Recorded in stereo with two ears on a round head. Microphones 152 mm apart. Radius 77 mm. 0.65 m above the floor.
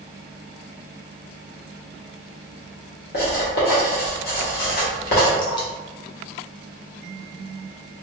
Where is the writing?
65° left (ahead or behind), 1.5 m.